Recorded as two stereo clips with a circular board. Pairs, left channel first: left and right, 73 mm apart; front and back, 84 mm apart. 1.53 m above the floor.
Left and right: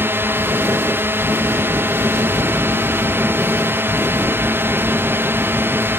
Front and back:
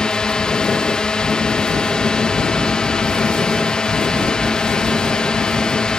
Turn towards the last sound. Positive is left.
turn(degrees=-75)